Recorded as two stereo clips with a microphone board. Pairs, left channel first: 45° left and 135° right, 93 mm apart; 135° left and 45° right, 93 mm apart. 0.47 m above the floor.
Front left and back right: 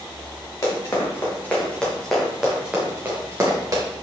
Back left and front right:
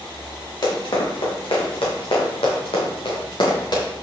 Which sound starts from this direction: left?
Running footsteps, at 0.6 s.